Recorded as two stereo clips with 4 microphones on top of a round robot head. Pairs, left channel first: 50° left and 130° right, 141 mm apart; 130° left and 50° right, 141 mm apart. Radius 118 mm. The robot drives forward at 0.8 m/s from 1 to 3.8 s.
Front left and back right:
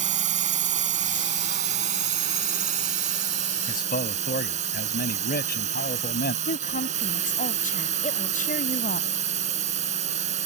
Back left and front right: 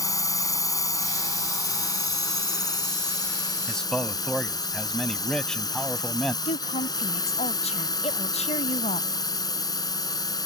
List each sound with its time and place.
0.0 s a drone: 165° right; by 10.5 s 170° right
3.7 s a man speaking: 40° left
6.5 s a woman speaking: 80° left